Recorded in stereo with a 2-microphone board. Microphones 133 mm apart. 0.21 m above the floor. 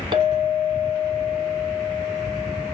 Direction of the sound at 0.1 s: 40° right (ahead or behind).